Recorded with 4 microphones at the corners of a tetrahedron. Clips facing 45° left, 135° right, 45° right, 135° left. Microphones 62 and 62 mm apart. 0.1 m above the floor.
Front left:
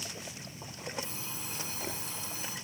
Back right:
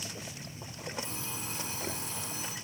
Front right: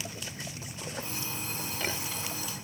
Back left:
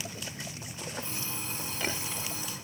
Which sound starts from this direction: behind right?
An alarm clock, at 1.0 s.